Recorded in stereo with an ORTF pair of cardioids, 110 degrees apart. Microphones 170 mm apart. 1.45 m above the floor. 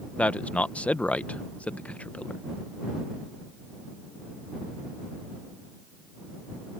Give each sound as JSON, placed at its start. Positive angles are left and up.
{"t": 0.2, "sound": "a man speaking", "azimuth_deg": 10}